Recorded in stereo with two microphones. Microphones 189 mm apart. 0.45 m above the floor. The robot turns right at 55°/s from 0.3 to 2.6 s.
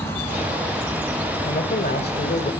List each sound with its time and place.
1.4 s a man speaking: 55° left, 1.7 m; by 2.5 s 115° left, 1.7 m